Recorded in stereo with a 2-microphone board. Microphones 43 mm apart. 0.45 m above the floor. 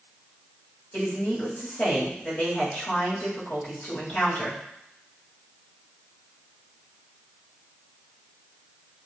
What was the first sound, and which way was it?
A woman speaking, 45° left (ahead or behind).